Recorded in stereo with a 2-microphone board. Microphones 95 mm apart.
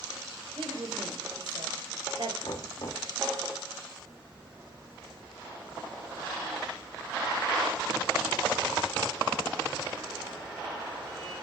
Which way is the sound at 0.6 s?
75° right (ahead or behind).